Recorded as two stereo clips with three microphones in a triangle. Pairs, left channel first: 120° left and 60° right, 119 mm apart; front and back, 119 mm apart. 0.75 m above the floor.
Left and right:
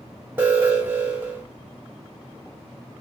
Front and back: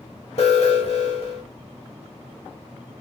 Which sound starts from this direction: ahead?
An alarm, at 0.4 s.